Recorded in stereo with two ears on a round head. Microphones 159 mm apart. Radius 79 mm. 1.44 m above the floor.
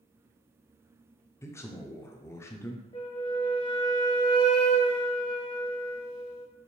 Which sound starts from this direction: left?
A flute, at 2.9 s.